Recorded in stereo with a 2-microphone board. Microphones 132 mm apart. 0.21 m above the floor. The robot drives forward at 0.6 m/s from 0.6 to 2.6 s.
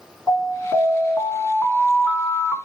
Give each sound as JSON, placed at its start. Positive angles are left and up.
{"t": 0.3, "sound": "an alarm", "side_deg": 10, "distance_m": 2.5}